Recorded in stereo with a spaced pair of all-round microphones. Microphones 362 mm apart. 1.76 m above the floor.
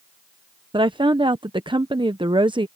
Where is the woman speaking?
15° right (ahead or behind).